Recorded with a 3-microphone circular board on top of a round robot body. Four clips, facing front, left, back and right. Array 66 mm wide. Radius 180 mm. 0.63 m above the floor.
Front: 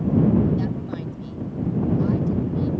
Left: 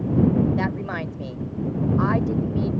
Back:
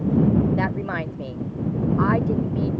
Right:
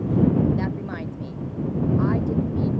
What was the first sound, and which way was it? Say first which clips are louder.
A woman speaking: left 2 dB, back 3 dB; 155° left.